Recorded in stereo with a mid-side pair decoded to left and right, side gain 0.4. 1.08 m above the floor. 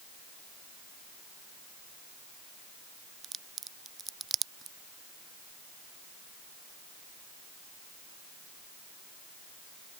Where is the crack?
50° right.